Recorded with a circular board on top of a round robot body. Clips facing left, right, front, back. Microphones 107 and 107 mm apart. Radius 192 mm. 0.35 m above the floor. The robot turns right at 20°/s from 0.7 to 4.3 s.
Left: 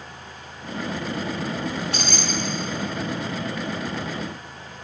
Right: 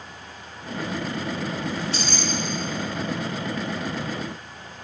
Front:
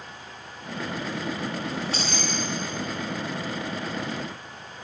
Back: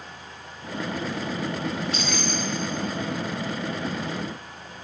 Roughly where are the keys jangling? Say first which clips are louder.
Even, back 1 dB; ahead left.